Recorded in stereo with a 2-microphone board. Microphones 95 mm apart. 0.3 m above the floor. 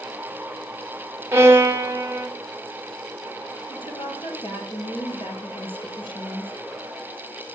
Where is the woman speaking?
65° left (ahead or behind), 6.5 m.